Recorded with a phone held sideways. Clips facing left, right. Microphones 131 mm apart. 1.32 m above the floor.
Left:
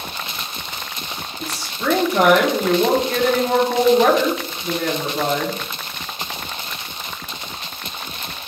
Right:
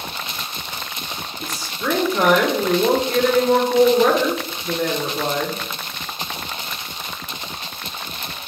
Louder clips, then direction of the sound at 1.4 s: Left 3 dB; 75° left (ahead or behind).